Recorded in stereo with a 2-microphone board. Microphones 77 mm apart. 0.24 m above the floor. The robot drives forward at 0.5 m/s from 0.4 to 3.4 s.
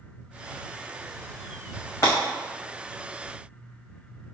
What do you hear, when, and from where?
2.0 s breaking glass: 35° left (ahead or behind), 1.8 m